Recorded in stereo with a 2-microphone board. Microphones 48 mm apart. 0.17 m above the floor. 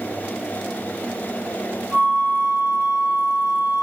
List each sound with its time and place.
1.9 s a flute: 40° right (ahead or behind), 1.0 m